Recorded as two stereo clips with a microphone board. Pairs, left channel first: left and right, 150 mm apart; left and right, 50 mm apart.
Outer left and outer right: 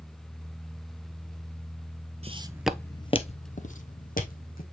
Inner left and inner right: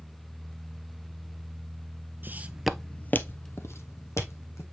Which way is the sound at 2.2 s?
40° right (ahead or behind).